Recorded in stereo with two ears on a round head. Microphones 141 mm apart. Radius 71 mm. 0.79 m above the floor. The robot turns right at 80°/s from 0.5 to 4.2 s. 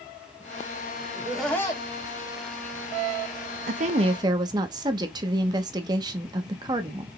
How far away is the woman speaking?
About 0.8 m.